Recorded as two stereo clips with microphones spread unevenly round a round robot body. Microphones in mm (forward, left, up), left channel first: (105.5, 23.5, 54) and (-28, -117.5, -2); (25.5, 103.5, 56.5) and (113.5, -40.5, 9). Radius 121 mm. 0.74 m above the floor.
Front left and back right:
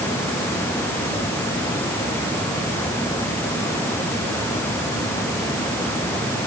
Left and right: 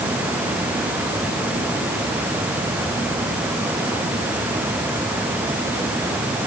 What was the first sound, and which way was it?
Only background noise.